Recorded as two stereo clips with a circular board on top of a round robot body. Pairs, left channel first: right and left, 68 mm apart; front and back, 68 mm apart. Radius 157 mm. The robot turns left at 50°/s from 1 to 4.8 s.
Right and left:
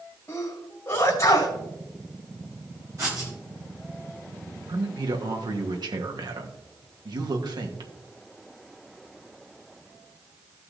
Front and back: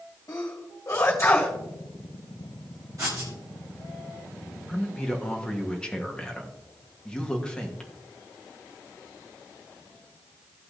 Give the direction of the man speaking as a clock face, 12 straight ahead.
9 o'clock.